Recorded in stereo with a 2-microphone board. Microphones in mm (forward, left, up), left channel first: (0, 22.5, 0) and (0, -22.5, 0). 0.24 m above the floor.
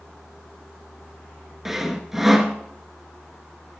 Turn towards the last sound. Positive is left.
turn(degrees=-5)  # may be behind; listen again after turning